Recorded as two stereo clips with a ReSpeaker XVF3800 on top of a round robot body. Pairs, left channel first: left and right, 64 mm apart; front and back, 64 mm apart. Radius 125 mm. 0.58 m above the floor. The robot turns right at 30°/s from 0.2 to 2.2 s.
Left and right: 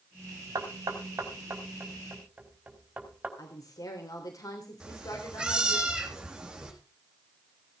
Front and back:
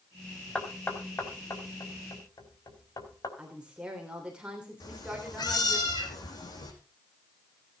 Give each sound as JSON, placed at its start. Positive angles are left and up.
{"t": 0.6, "sound": "knocking", "azimuth_deg": -70, "distance_m": 4.5}
{"t": 3.4, "sound": "a woman speaking", "azimuth_deg": 105, "distance_m": 3.0}
{"t": 4.8, "sound": "a cat meowing", "azimuth_deg": -10, "distance_m": 5.0}